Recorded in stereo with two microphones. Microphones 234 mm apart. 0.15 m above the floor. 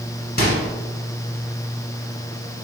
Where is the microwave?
40° left (ahead or behind), 1.3 m.